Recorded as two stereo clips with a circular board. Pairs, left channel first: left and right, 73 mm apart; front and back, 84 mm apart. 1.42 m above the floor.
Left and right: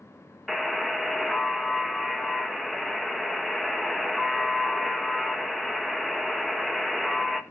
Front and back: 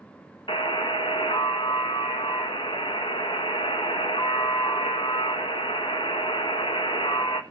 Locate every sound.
0.5 s a buzzer: straight ahead, 1.5 m